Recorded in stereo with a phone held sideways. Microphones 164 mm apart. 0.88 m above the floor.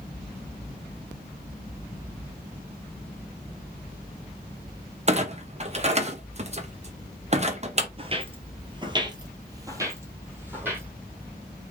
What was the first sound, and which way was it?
A clunk, 40° right (ahead or behind).